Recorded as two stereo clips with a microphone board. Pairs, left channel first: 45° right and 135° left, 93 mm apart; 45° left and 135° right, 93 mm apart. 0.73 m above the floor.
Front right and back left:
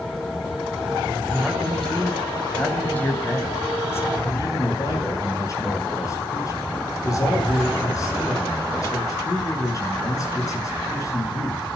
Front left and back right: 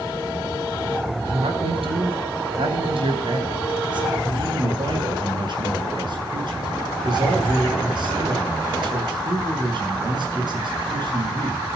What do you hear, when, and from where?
1.2 s a man speaking: 135° right, 5.5 m; by 4.2 s 105° right, 5 m
4.2 s a man speaking: 100° right, 8 m